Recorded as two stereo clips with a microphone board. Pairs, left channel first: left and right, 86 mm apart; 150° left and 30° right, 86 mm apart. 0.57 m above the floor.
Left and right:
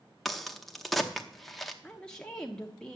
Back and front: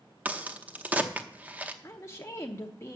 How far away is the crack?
About 0.8 m.